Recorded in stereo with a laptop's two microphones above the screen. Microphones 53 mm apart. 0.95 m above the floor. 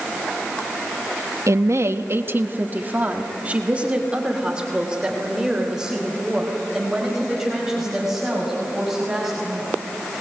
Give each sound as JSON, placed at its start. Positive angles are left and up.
{"t": 1.5, "sound": "a woman speaking", "side_deg": -70, "distance_m": 0.9}